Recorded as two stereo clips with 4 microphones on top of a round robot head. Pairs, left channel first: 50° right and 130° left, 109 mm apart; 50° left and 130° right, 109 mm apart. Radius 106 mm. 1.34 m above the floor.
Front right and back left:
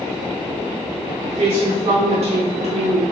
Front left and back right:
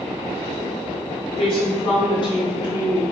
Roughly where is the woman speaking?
Left.